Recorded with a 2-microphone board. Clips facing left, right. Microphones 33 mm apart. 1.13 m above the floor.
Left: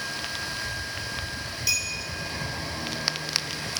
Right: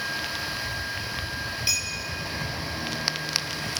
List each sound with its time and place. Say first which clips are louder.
1.7 s a clink: left 2 dB; 25° right (ahead or behind), 0.8 m